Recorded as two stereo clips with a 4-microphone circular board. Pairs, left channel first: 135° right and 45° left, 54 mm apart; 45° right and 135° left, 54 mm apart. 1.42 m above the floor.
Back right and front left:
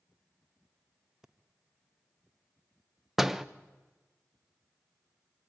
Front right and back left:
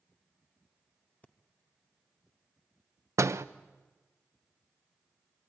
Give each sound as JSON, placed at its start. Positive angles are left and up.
{"t": 1.2, "sound": "breathing", "azimuth_deg": -30, "distance_m": 1.1}
{"t": 3.2, "sound": "a door slam", "azimuth_deg": 125, "distance_m": 0.7}